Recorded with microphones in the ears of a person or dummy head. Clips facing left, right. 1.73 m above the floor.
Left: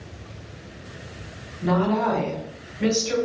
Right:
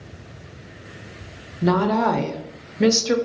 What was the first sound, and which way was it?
A woman speaking, 70° right (ahead or behind).